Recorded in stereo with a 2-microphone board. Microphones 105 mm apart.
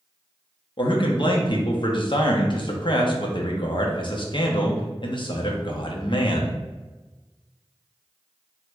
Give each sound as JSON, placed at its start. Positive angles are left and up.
{"t": 0.8, "sound": "a man speaking", "side_deg": 50, "distance_m": 0.6}